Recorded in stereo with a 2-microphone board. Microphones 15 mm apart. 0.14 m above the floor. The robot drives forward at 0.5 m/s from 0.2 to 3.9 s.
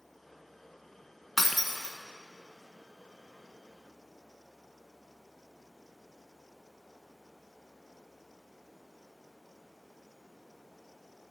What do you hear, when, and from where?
1.4 s breaking glass: 10° left (ahead or behind), 0.5 m; by 2.0 s 5° left (ahead or behind), 0.7 m